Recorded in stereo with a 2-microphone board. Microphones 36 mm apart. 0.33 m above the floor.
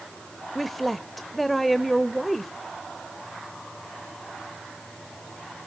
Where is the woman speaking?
Centre (ahead or behind), 0.9 m.